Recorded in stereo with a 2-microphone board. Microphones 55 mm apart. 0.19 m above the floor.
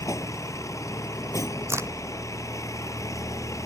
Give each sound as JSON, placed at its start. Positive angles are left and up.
{"t": 0.0, "sound": "a vehicle", "side_deg": 75}
{"t": 1.7, "sound": "a crack", "side_deg": -55}